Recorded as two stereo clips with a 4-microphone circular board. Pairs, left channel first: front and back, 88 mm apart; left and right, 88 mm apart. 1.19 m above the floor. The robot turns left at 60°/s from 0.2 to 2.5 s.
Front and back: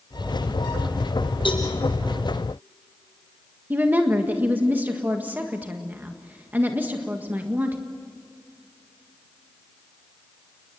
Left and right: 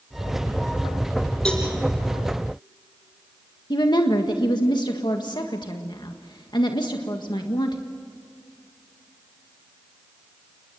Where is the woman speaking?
115° left, 1.7 m.